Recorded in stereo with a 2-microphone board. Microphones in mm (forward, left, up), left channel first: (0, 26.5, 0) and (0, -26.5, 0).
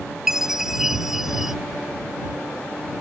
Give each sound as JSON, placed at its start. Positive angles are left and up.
{"t": 0.3, "sound": "a chime", "side_deg": -10}